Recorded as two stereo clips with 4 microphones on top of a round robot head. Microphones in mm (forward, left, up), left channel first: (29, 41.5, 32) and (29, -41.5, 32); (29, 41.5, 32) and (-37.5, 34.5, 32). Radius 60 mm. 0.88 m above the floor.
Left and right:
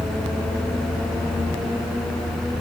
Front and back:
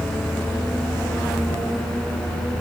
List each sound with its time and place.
Only background noise.